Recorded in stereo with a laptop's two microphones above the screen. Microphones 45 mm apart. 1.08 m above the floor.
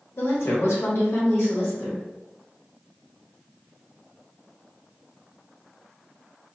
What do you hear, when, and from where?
0.2 s a woman speaking: 60° left (ahead or behind), 0.9 m